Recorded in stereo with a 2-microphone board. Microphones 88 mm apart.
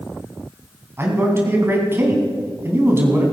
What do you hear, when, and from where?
1.0 s a man speaking: 25° right (ahead or behind), 3 m